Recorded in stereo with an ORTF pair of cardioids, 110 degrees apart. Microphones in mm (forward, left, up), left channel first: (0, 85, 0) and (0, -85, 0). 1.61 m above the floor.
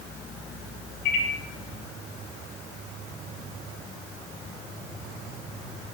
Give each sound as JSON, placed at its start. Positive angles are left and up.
{"t": 1.1, "sound": "a microwave", "azimuth_deg": 65, "distance_m": 0.5}